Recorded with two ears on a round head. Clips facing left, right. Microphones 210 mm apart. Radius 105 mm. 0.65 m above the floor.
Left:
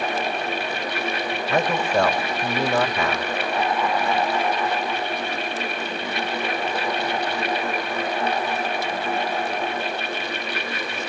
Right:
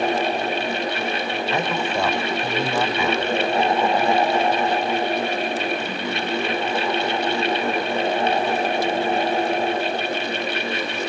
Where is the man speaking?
55° left (ahead or behind), 3 m.